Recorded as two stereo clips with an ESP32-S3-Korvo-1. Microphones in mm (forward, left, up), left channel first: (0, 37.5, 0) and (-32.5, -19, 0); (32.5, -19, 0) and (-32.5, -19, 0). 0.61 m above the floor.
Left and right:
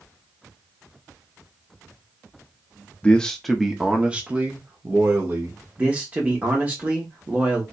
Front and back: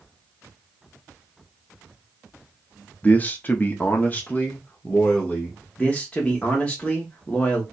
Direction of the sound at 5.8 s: 65° right.